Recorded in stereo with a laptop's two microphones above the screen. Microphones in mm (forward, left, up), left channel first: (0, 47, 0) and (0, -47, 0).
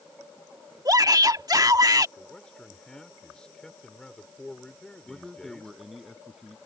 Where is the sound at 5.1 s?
Centre (ahead or behind).